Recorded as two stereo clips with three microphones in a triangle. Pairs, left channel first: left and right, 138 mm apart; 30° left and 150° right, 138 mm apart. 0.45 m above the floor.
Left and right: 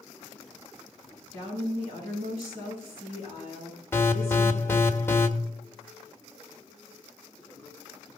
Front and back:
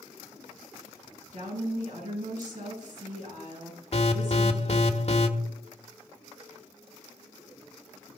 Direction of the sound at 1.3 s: 135° right.